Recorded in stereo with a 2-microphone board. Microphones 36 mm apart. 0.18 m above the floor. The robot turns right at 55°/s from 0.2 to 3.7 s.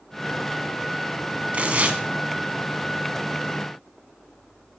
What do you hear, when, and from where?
1.5 s tearing paper: 35° right (ahead or behind), 0.7 m; by 2.0 s 40° right (ahead or behind), 0.7 m